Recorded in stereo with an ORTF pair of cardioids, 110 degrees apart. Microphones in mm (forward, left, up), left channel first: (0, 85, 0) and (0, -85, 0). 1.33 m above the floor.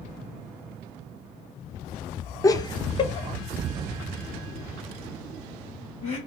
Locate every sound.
2.4 s laughter: 20° left, 0.5 m; by 6.2 s 40° left, 3 m